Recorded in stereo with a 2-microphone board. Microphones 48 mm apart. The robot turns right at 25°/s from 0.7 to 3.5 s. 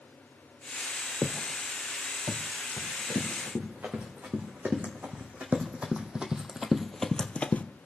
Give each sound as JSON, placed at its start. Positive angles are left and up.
{"t": 1.2, "sound": "footsteps", "side_deg": -45, "distance_m": 0.8}
{"t": 2.8, "sound": "running footsteps", "side_deg": -20, "distance_m": 4.5}